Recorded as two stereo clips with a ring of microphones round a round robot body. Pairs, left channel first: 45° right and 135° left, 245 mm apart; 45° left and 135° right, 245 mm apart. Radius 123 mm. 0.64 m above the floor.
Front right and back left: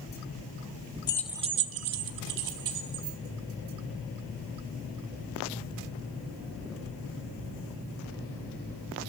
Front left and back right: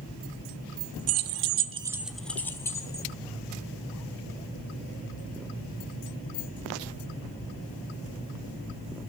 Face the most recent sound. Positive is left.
turn(degrees=120)